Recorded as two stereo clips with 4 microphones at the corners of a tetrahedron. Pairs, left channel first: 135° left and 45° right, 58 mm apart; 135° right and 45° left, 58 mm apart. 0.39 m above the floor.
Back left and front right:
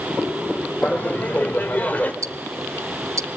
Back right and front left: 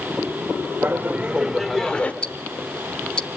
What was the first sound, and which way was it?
Laughter, 85° left.